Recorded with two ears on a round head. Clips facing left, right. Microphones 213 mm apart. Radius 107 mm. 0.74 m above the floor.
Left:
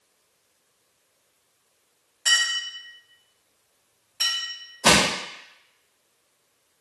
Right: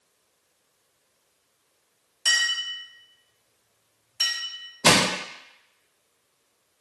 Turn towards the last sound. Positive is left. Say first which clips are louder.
# even
turn(degrees=-40)  # may be behind; listen again after turning